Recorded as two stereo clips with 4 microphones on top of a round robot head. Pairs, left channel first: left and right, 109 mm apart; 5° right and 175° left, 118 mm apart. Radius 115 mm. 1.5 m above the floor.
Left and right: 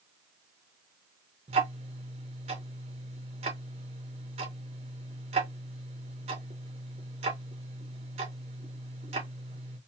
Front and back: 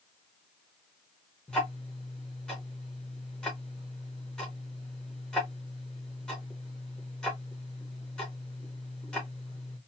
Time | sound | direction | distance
1.5 | ticking | 85° right | 0.8 m